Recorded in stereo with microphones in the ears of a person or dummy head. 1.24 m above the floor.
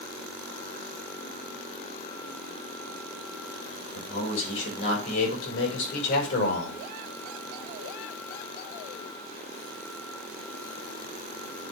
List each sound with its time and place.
4.0 s a man speaking: 70° left (ahead or behind), 6 m; by 6.8 s 60° left (ahead or behind), 4.5 m